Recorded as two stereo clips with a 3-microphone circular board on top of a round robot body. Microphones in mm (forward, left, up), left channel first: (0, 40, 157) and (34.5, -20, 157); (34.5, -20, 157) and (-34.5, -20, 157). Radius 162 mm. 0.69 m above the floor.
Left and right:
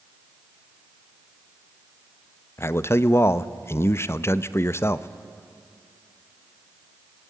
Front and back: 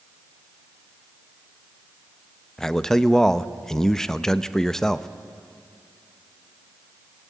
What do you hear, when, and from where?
2.6 s a man speaking: 80° left, 0.9 m